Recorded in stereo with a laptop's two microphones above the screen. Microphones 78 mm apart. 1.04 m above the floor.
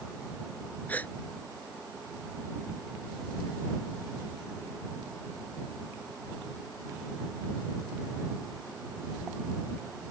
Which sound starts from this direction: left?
A gasp, at 0.9 s.